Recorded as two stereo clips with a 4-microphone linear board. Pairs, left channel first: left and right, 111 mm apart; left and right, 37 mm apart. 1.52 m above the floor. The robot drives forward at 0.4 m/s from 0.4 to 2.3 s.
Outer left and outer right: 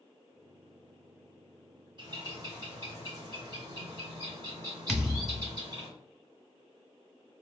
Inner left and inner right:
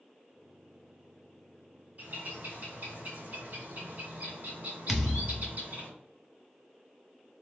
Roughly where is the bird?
Right.